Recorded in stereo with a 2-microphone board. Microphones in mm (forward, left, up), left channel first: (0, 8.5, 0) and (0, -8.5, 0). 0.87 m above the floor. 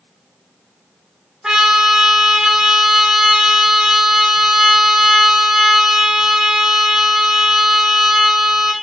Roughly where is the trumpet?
Right.